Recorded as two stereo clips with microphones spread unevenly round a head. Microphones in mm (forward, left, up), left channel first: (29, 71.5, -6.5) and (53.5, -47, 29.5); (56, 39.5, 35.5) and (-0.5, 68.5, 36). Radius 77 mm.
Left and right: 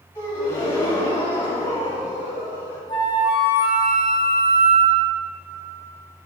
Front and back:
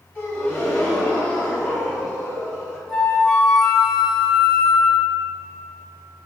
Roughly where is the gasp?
Ahead.